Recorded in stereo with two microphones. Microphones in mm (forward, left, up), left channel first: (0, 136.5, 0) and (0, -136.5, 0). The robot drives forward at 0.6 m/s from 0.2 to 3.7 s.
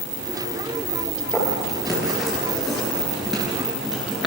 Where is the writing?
Centre (ahead or behind), 9.5 m.